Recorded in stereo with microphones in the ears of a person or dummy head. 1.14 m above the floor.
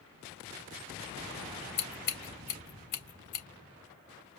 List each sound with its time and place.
1.8 s scissors: 65° left (ahead or behind), 3.5 m